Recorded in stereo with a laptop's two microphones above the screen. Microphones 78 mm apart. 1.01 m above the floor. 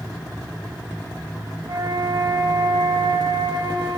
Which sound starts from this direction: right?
A flute, at 1.7 s.